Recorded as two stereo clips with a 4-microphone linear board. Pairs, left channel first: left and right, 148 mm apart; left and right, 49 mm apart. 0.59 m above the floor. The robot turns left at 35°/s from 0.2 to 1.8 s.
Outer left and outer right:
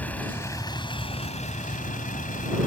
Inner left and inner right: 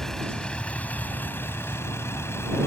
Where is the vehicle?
170° left; by 2.7 s 115° left.